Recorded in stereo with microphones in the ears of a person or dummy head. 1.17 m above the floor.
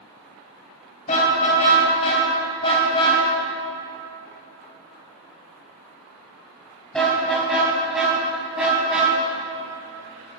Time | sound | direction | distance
1.1 | a car horn | 40° left (ahead or behind) | 4.5 m